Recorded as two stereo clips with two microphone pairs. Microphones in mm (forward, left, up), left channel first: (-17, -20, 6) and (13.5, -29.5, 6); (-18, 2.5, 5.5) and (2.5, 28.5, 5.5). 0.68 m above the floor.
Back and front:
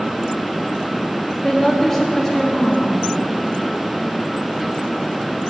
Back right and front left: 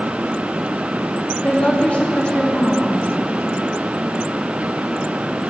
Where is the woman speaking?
115° right, 1.0 m.